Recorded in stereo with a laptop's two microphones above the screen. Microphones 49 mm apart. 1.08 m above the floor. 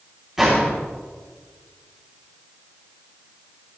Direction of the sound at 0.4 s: 10° right (ahead or behind).